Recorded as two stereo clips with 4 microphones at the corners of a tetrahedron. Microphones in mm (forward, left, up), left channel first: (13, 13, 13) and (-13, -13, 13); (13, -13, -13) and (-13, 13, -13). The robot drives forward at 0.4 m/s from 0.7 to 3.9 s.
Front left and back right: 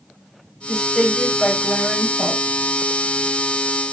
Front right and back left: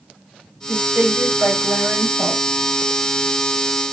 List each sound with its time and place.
0.7 s a woman speaking: 130° left, 6 m; by 2.4 s 135° left, 6.5 m